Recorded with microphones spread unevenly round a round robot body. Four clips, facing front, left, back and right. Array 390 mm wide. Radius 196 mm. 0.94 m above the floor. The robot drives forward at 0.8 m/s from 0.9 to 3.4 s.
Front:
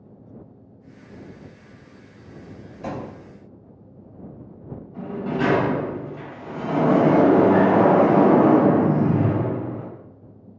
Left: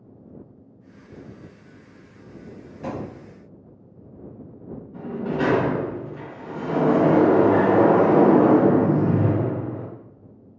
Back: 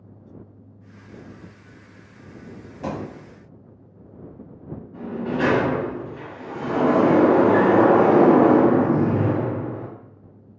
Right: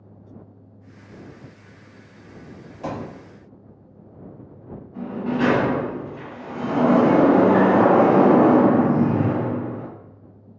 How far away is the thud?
About 1.8 m.